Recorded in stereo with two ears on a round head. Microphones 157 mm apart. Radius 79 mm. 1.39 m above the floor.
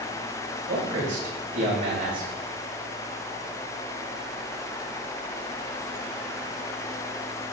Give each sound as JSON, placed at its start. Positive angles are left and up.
{"t": 0.7, "sound": "a man speaking", "side_deg": -55, "distance_m": 6.0}